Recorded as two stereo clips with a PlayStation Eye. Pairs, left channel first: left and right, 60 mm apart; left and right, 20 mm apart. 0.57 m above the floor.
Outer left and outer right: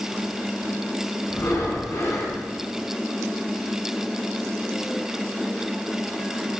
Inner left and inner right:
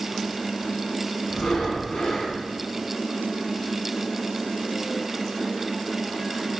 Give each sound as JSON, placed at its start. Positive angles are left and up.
{"t": 1.3, "sound": "breathing", "side_deg": 50, "distance_m": 4.0}